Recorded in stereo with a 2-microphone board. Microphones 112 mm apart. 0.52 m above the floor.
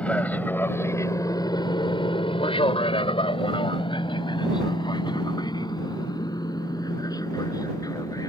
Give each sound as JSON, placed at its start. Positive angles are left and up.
{"t": 0.0, "sound": "an aircraft", "side_deg": 10}